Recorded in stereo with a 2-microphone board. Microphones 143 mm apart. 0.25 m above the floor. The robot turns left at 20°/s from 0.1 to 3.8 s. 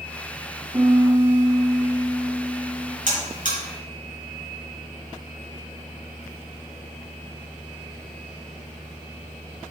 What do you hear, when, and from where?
0.7 s a piano: 155° right, 1.2 m; by 3.0 s 160° left, 1.2 m
3.1 s a buzzer: 70° right (ahead or behind), 3.5 m; by 3.6 s 65° right (ahead or behind), 3.5 m